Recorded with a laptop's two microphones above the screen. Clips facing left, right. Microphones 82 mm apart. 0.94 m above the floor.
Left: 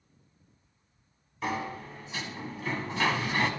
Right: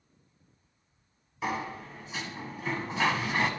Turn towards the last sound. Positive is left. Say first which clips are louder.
# even
turn(degrees=-5)  # may be behind; listen again after turning